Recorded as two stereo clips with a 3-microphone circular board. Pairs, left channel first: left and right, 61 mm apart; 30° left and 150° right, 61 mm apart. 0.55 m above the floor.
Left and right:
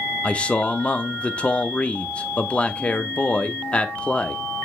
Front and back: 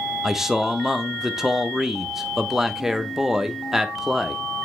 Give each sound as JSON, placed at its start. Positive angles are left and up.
{"t": 0.2, "sound": "a man speaking", "azimuth_deg": 135, "distance_m": 0.7}